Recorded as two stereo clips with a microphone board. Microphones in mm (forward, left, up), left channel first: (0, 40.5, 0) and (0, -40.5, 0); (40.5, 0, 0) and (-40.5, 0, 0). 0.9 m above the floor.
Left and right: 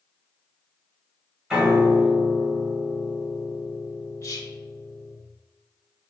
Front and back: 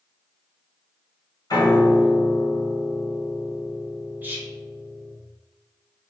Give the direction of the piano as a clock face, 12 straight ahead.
1 o'clock.